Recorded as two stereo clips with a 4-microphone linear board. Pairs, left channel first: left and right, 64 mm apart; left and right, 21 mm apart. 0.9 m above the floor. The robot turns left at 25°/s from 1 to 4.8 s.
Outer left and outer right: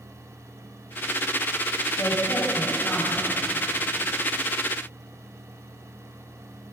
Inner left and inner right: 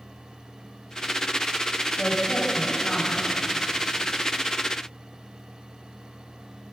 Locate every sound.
2.0 s a woman speaking: 50° left, 4.5 m; by 3.4 s 15° left, 4.5 m